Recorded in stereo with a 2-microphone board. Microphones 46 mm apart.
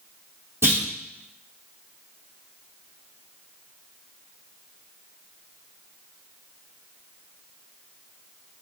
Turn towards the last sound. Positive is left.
turn(degrees=-50)  # may be behind; listen again after turning